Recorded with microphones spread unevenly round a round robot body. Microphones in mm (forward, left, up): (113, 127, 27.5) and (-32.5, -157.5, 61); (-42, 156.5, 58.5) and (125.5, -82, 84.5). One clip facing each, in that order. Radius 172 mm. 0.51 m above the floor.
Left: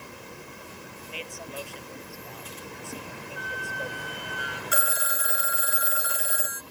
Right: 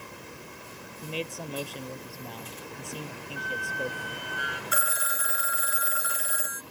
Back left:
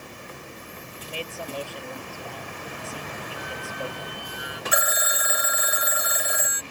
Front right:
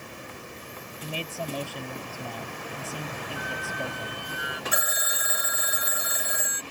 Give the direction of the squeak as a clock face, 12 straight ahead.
3 o'clock.